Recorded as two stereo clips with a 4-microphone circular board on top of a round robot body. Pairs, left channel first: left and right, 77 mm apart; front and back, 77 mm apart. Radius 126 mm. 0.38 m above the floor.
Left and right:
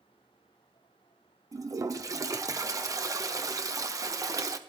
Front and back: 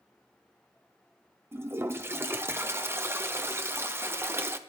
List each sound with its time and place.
1.5 s a toilet flushing: 125° right, 1.5 m